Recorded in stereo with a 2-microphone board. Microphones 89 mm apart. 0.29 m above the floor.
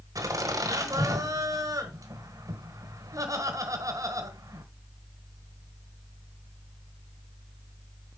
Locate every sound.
0.1 s laughter: 40° right (ahead or behind), 1.2 m